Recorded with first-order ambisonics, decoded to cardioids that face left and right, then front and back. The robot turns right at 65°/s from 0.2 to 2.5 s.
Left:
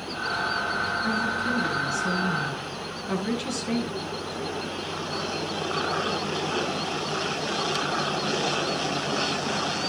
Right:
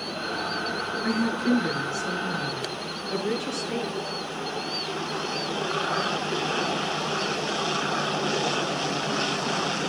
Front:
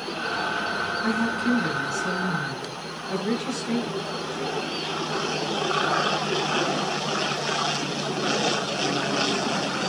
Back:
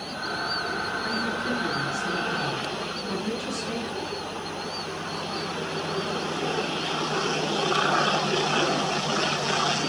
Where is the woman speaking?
10° right, 7.5 m; by 4.0 s 85° left, 7.5 m.